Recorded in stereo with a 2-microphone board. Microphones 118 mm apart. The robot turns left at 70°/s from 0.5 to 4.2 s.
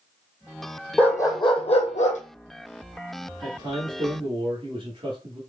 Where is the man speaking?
45° right, 1.7 m; by 5.4 s 100° right, 1.7 m.